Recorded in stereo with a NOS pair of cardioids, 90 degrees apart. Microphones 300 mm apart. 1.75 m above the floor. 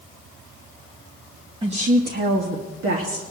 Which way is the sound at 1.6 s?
20° right.